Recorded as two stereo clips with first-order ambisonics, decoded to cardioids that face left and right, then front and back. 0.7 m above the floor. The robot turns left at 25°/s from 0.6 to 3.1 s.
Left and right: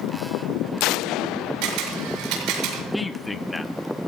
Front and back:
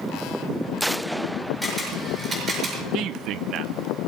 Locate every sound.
1.6 s a camera shutter: 90° right, 6.5 m; by 2.8 s 120° right, 6.5 m
2.9 s a man speaking: 175° left, 0.7 m; by 3.7 s 170° left, 0.7 m